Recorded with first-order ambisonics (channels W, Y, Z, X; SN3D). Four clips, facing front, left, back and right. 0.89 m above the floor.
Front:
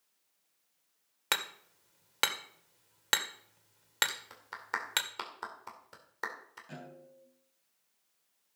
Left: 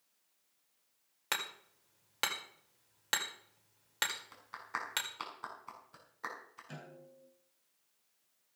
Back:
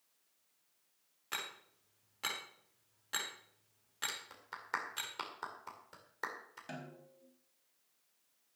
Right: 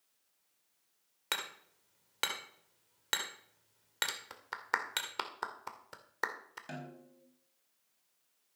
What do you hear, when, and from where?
1.3 s hammering: 5° right, 1.9 m
4.1 s a clap: 80° right, 2 m
6.7 s a snare drum: 125° right, 4.5 m